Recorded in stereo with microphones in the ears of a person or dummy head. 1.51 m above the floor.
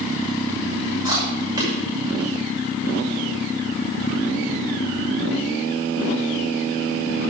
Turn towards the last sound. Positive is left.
turn(degrees=-20)  # may be behind; listen again after turning